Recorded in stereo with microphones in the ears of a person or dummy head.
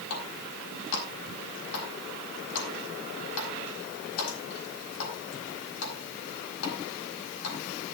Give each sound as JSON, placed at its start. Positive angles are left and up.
{"t": 0.1, "sound": "a running tap", "side_deg": 85, "distance_m": 5.5}